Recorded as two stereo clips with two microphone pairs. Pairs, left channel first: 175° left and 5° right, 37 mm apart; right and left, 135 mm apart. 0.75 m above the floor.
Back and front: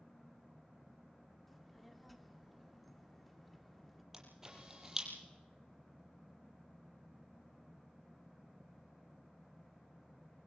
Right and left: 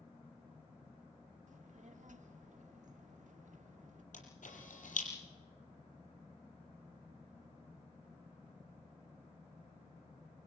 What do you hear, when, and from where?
1.5 s a child speaking: 85° left, 1.6 m
4.1 s a camera shutter: 80° right, 7 m